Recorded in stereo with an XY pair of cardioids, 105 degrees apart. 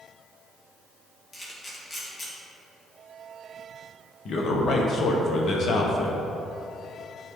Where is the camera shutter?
25° left, 1.9 m.